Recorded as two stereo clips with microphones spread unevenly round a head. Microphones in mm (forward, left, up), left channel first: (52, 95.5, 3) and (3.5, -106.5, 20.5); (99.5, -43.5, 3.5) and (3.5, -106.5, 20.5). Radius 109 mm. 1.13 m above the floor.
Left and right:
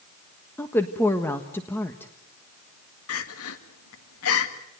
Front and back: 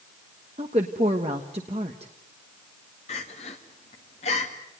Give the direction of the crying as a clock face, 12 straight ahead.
9 o'clock.